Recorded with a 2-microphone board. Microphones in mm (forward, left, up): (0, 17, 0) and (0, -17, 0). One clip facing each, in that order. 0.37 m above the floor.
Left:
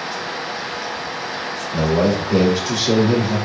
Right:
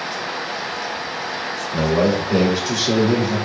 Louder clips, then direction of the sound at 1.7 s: Even; 25° right (ahead or behind).